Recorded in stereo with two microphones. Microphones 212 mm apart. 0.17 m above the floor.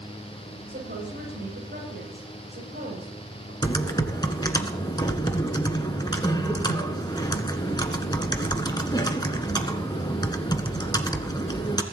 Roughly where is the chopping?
I don't hear chopping.